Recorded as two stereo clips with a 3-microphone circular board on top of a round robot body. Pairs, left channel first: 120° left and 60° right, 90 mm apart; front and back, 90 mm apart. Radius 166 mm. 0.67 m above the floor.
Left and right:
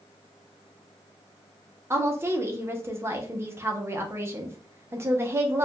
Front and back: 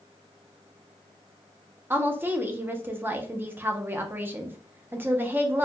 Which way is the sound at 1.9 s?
115° right.